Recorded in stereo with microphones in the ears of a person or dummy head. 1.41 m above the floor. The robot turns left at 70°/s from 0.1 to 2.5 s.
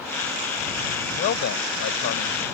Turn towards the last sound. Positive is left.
turn(degrees=40)